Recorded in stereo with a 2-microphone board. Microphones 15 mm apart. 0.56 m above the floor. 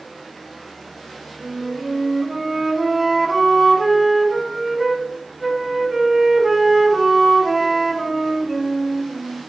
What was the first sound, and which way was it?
A flute, 20° right (ahead or behind).